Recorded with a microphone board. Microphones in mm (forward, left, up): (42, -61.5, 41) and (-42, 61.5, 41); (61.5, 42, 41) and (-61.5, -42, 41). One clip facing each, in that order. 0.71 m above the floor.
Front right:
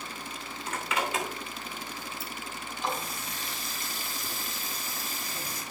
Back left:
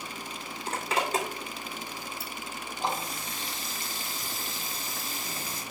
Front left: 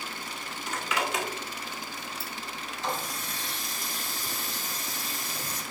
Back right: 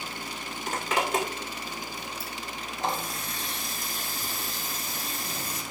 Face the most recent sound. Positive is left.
turn(degrees=180)